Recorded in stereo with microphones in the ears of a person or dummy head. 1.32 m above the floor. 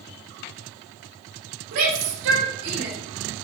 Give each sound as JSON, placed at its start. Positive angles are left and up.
{"t": 1.7, "sound": "a shout", "side_deg": -75, "distance_m": 5.0}